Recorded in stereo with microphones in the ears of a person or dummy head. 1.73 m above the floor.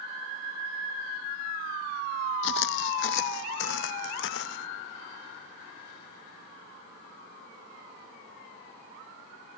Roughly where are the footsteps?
Left.